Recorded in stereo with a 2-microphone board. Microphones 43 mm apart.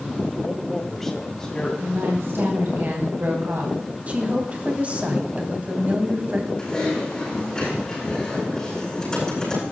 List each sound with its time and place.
0.5 s a man speaking: 10° right (ahead or behind), 1.3 m; by 1.7 s 15° left (ahead or behind), 2.5 m
1.8 s a woman speaking: 60° right (ahead or behind), 3 m
4.1 s a woman speaking: 35° right (ahead or behind), 2.5 m
6.6 s typing on a keyboard: 20° left (ahead or behind), 8.5 m